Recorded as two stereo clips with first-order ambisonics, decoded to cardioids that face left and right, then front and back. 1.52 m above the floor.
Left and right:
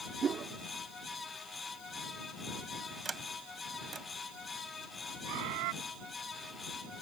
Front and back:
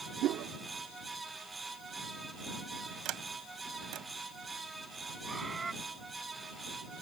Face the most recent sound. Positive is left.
turn(degrees=-100)